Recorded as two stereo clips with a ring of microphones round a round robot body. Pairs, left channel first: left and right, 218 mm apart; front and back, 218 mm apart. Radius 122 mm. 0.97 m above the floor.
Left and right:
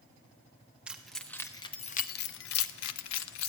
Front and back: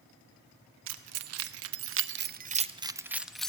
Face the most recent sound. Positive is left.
turn(degrees=85)